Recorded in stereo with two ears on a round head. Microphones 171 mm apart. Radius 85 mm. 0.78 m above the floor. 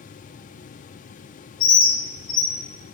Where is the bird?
85° left, 4.5 m.